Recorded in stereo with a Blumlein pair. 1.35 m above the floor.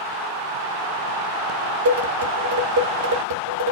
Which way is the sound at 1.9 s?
65° right.